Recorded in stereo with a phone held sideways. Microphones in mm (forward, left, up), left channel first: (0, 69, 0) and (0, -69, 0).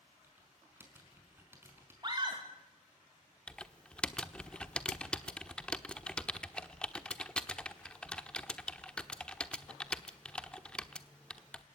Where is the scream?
35° right (ahead or behind), 2.5 m.